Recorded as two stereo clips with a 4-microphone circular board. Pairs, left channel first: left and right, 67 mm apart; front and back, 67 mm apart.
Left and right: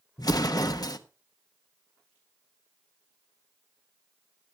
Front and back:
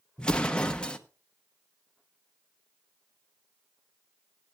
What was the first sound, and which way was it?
An explosion, 75° left.